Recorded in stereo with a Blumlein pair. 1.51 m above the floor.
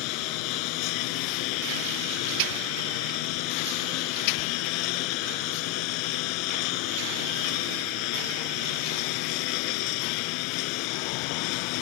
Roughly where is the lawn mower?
Ahead left.